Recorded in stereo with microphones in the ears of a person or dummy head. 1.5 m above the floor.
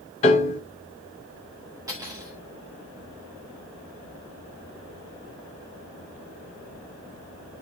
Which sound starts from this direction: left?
A piano, at 0.2 s.